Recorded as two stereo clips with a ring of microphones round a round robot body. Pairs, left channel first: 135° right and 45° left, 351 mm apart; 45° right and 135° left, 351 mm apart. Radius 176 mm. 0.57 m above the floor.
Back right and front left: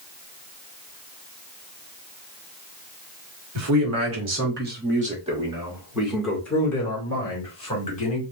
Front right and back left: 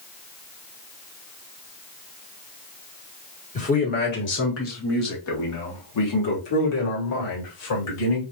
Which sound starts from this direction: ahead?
A man speaking, at 3.5 s.